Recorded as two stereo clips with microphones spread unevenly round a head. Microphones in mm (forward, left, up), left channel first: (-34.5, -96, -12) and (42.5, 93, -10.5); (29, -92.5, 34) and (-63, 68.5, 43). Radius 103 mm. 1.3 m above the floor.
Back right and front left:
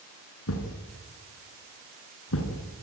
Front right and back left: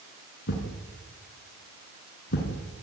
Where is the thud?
95° right, 5 m.